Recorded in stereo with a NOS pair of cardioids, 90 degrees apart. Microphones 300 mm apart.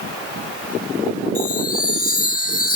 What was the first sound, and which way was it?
A chime, 30° left.